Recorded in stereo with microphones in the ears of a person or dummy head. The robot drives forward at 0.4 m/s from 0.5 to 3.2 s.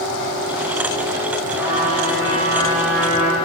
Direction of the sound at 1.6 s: 5° right (ahead or behind).